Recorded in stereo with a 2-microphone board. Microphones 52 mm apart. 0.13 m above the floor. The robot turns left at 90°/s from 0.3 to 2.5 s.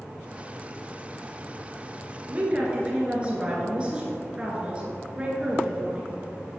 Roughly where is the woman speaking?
Right.